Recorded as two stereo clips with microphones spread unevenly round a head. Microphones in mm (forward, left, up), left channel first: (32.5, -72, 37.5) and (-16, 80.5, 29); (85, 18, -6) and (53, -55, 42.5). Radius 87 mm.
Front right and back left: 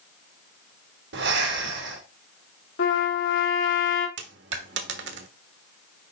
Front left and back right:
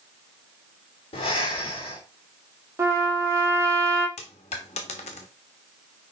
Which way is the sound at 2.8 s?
60° right.